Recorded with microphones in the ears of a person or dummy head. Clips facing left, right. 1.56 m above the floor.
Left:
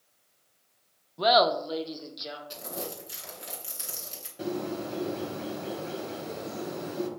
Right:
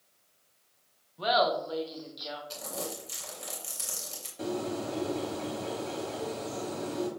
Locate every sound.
1.2 s laughter: 70° left (ahead or behind), 0.5 m; by 2.4 s 30° left (ahead or behind), 0.9 m
2.5 s crumpling: 20° left (ahead or behind), 2 m
4.4 s a bird: 20° left (ahead or behind), 1.1 m